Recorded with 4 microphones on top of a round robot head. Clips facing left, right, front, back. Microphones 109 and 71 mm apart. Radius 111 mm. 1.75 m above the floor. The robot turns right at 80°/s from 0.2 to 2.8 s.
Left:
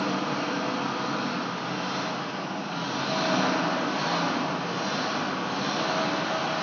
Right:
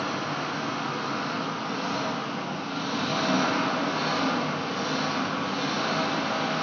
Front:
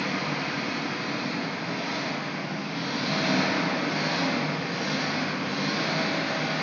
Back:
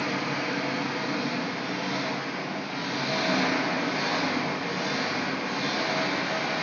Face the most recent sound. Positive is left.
turn(degrees=-60)